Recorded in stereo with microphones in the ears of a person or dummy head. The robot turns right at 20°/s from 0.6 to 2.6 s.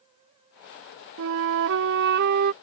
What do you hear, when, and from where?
1.2 s a flute: 75° right (ahead or behind); by 2.5 s 55° right (ahead or behind)